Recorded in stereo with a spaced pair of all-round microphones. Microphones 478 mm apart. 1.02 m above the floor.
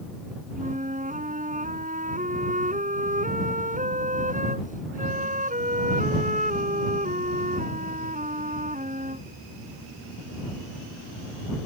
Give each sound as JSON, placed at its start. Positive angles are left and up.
{"t": 0.6, "sound": "a flute", "side_deg": -15}